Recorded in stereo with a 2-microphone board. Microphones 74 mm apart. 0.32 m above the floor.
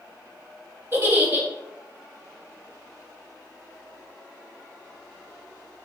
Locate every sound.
0.9 s a giggle: 30° right (ahead or behind), 1.0 m